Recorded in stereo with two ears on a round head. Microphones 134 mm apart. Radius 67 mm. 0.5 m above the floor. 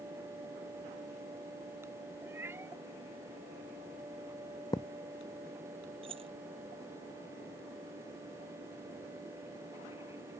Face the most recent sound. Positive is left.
turn(degrees=-40)  # may be behind; listen again after turning